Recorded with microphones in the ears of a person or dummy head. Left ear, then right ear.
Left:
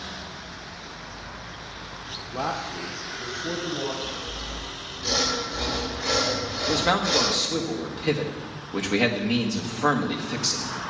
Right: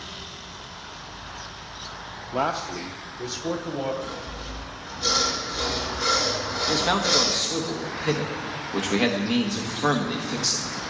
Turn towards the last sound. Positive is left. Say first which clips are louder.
# even
turn(degrees=5)  # may be behind; listen again after turning